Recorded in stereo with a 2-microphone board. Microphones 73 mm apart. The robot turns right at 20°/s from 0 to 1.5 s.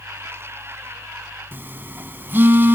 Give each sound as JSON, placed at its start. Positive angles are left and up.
{"t": 1.5, "sound": "a phone buzzing", "side_deg": -30, "distance_m": 0.8}